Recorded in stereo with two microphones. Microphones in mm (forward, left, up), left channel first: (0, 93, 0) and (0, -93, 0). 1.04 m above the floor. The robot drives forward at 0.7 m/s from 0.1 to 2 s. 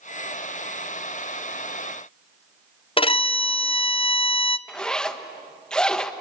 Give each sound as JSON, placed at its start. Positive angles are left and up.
{"t": 3.0, "sound": "a violin", "side_deg": 30, "distance_m": 0.5}
{"t": 4.7, "sound": "a zipper", "side_deg": 5, "distance_m": 1.1}